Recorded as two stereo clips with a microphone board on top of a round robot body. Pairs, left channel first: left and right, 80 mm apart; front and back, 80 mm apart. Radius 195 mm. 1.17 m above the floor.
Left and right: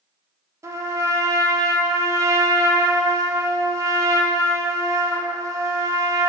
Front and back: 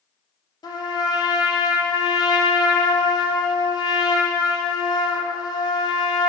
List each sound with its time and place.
0.6 s a trumpet: 40° right, 1.1 m